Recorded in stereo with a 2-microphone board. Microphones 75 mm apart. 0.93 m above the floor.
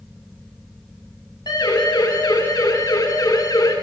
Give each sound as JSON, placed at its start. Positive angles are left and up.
{"t": 1.5, "sound": "a siren", "side_deg": 70, "distance_m": 8.5}